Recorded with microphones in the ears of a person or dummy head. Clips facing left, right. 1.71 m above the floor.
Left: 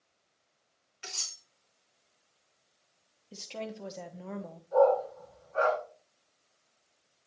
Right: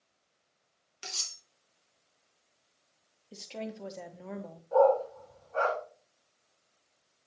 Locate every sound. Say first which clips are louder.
1.0 s cutlery clinking: right 1 dB; 60° right (ahead or behind), 2 m
3.3 s a woman speaking: even; centre (ahead or behind), 0.9 m
4.7 s a dog barking: even; 55° right (ahead or behind), 3 m